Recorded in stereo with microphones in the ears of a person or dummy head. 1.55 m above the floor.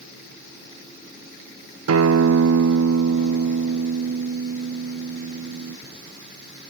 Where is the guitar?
90° right, 0.7 m.